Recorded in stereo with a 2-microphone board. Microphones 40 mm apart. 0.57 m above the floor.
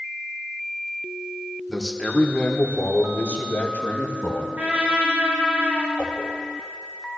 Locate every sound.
1.7 s a man speaking: centre (ahead or behind), 1.4 m; by 4.5 s 65° left (ahead or behind), 3 m
4.6 s a trumpet: 55° right (ahead or behind), 4 m
6.0 s a whoosh: 30° left (ahead or behind), 3 m